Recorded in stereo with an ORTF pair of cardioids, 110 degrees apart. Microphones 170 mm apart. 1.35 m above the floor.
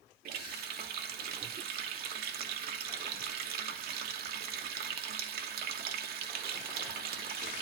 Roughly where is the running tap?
Right.